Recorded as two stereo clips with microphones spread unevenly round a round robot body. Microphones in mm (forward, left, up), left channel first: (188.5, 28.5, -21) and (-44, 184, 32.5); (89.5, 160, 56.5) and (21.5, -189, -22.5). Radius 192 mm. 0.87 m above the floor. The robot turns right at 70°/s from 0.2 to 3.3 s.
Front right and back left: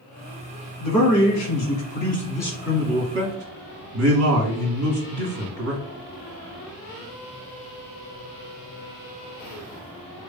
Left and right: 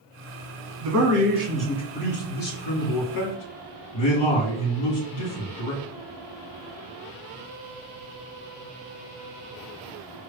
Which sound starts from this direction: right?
A man speaking, at 0.8 s.